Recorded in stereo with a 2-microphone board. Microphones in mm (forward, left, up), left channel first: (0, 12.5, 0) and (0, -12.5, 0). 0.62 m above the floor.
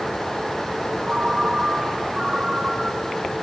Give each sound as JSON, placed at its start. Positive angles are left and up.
{"t": 1.1, "sound": "a ringtone", "side_deg": -30, "distance_m": 4.0}